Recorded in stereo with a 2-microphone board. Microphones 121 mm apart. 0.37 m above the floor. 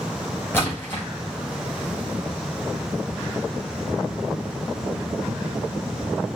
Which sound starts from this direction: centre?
A splash, at 0.5 s.